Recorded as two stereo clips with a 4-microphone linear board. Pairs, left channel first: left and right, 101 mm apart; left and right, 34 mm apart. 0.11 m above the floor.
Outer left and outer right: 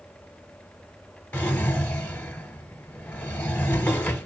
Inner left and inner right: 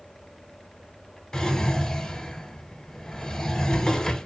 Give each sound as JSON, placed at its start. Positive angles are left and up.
{"t": 1.3, "sound": "a drawer", "side_deg": 15, "distance_m": 0.9}